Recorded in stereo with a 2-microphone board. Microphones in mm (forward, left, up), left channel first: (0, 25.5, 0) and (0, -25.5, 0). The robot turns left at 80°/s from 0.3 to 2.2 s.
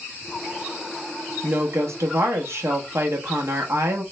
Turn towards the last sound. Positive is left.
turn(degrees=-110)